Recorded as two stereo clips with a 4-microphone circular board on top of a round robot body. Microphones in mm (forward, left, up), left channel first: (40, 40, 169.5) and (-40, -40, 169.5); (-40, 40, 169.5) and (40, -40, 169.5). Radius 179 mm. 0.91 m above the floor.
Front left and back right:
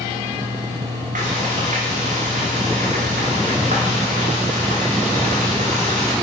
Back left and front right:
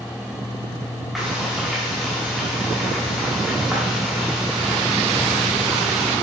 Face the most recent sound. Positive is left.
turn(degrees=-135)